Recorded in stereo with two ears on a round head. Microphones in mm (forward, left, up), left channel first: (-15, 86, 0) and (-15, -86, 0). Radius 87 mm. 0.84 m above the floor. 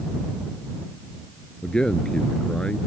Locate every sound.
1.6 s a man speaking: 5° left (ahead or behind)